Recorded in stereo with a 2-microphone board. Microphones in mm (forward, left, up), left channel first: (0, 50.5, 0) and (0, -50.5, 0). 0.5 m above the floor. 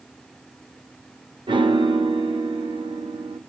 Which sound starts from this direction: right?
A piano, at 1.5 s.